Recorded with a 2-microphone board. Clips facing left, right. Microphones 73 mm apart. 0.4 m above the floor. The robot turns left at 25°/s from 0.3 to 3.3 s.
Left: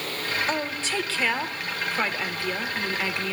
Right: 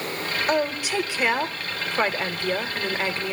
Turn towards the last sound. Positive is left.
turn(degrees=-20)  # may be behind; listen again after turning